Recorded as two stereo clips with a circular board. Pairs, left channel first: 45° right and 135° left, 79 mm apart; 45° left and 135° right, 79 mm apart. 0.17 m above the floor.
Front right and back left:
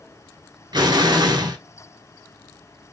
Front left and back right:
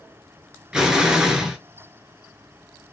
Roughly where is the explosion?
Behind left.